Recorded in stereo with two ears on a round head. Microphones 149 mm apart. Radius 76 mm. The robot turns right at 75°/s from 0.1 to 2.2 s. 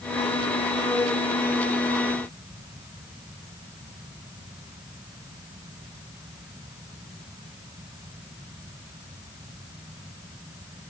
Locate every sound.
Only background noise.